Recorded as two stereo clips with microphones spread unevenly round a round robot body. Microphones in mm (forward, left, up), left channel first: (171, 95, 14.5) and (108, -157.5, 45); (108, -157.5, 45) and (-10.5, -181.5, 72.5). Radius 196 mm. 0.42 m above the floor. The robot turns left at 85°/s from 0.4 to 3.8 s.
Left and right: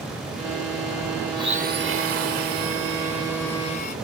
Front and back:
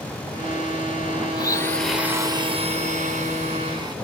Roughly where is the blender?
Ahead right.